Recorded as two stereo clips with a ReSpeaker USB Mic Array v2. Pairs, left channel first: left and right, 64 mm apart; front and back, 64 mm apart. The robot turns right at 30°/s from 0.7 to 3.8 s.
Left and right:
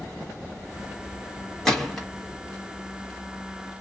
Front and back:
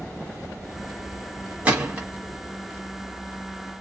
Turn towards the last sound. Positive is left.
turn(degrees=-130)